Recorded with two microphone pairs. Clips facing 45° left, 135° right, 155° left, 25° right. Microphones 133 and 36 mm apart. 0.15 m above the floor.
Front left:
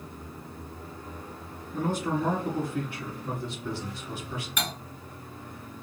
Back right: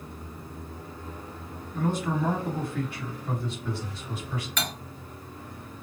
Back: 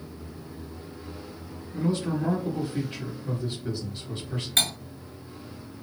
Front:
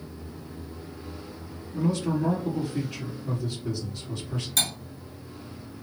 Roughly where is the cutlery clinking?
Behind left.